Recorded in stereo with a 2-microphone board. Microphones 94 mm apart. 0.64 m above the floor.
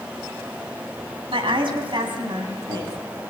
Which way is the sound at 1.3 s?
65° right (ahead or behind).